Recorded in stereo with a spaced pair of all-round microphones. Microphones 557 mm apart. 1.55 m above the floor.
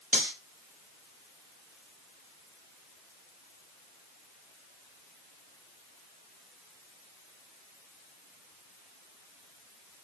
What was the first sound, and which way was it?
Cutlery clinking, 25° right (ahead or behind).